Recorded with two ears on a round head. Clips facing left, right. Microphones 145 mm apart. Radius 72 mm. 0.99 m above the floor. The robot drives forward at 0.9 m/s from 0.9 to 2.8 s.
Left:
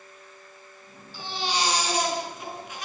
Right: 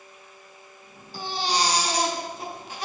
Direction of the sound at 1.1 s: 35° right (ahead or behind).